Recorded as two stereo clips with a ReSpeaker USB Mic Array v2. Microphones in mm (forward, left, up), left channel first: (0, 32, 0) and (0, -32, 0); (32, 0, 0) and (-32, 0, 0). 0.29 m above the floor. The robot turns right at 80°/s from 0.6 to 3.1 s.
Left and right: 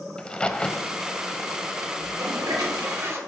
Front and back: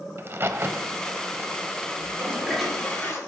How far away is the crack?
About 0.6 m.